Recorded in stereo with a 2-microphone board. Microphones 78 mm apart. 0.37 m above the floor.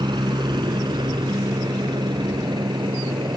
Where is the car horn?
I don't hear a car horn.